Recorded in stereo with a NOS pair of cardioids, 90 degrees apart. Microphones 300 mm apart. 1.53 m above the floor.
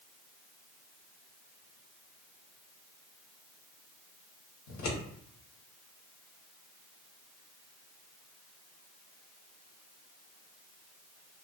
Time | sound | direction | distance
4.7 | scissors | 65° left | 1.2 m